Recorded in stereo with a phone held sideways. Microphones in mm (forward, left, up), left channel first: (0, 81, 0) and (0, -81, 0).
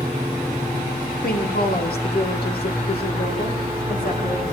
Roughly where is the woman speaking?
Left.